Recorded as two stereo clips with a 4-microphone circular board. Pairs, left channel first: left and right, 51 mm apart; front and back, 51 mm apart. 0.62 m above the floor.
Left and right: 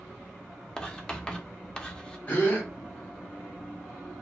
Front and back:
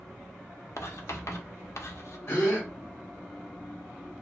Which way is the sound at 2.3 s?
35° left.